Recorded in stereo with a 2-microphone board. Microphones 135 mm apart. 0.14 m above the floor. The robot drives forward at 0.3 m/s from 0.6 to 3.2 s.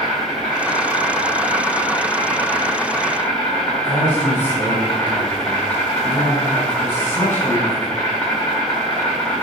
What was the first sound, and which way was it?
An insect, 25° left (ahead or behind).